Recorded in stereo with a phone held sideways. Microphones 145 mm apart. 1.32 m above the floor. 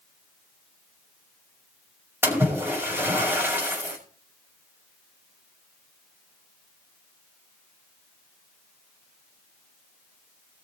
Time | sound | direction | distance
2.2 | a splash | 15° right (ahead or behind) | 5.5 m